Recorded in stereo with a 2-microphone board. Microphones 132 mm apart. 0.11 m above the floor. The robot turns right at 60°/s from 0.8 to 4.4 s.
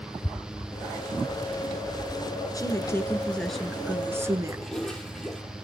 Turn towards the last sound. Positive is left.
turn(degrees=5)  # may be behind; listen again after turning